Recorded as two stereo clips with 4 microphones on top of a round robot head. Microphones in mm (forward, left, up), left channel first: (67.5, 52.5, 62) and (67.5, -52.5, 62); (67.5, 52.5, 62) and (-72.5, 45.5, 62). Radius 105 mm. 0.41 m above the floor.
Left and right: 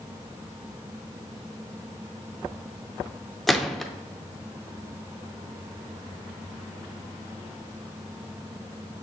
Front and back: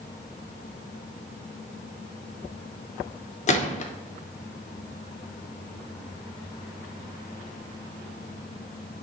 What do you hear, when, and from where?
3.5 s a gunshot: straight ahead, 0.6 m